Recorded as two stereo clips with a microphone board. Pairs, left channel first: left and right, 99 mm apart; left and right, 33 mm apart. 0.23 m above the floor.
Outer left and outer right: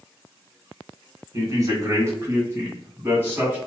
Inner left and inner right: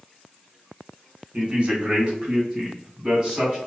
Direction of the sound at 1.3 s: 35° right (ahead or behind).